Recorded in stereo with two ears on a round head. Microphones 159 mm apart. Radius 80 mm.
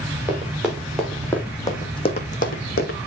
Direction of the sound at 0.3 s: 10° right (ahead or behind).